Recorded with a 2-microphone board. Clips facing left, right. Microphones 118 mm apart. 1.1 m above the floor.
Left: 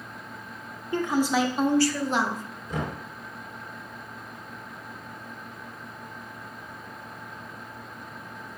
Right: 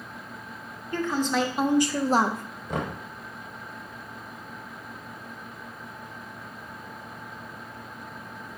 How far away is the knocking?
About 1.1 m.